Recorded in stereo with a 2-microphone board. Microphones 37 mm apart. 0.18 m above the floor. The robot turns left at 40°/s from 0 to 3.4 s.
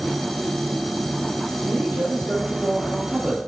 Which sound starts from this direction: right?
A man speaking, at 1.6 s.